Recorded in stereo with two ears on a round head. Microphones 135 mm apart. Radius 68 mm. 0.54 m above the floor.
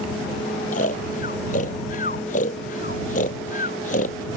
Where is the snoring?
50° left (ahead or behind).